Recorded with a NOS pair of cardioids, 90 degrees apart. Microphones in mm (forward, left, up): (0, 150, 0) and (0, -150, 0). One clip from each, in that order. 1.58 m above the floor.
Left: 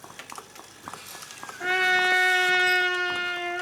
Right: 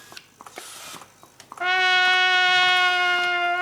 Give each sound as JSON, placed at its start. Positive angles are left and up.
{"t": 1.6, "sound": "a trumpet", "azimuth_deg": -50, "distance_m": 1.1}